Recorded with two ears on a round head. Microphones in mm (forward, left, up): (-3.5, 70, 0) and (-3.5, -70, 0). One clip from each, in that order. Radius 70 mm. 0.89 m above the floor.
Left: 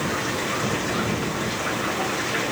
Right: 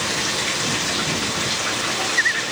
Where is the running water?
70° right (ahead or behind).